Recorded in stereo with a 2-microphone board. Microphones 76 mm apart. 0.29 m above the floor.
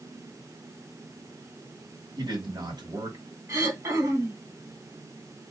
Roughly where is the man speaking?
Right.